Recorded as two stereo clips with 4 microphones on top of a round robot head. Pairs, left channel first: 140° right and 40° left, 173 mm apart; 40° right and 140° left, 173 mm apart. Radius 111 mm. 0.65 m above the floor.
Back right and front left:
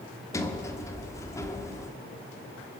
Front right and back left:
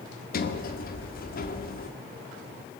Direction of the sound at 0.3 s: 65° right.